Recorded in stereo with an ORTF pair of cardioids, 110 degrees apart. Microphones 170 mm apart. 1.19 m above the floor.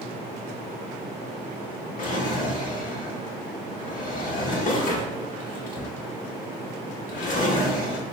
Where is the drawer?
50° left, 0.9 m.